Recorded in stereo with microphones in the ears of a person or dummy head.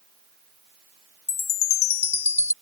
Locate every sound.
1.3 s a chime: 35° left (ahead or behind)